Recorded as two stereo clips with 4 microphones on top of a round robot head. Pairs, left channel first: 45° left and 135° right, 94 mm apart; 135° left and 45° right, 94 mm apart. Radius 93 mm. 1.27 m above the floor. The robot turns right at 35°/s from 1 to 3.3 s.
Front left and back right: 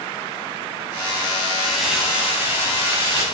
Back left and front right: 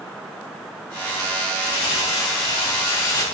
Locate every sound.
1.6 s crumpling: 125° left, 6 m; by 3.2 s 175° right, 6 m